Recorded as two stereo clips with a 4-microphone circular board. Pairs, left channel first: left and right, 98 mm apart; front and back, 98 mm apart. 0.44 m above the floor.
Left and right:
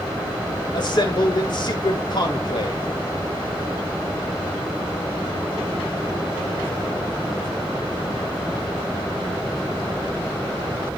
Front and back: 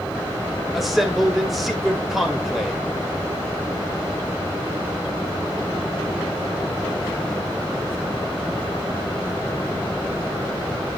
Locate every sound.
0.7 s a man speaking: 95° left, 1.7 m